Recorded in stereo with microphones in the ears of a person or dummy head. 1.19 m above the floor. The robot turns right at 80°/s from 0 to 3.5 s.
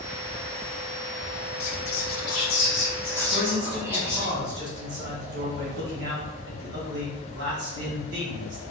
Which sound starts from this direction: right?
A man speaking, at 3.3 s.